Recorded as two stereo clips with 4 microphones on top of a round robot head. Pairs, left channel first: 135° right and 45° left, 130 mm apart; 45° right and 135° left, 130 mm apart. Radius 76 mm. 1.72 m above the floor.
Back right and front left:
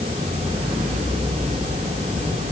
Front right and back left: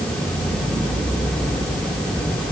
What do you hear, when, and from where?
Only background noise.